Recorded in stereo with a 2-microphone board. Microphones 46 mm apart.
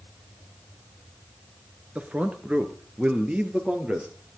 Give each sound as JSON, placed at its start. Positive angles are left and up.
{"t": 1.9, "sound": "a man speaking", "side_deg": -30, "distance_m": 1.5}